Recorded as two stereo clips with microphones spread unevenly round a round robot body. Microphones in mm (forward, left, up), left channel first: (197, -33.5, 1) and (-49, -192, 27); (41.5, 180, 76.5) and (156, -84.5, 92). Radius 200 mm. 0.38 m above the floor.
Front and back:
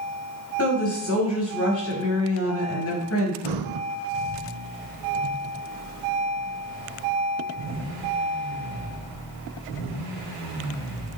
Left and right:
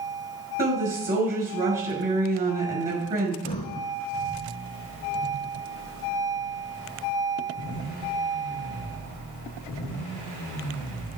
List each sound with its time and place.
0.6 s a woman speaking: 5° right, 6 m
3.4 s breathing: 170° right, 0.6 m